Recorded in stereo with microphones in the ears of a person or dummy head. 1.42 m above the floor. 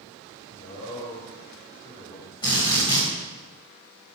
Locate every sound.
0.5 s a man speaking: 40° left (ahead or behind), 3 m
2.4 s a drill: 25° left (ahead or behind), 2.5 m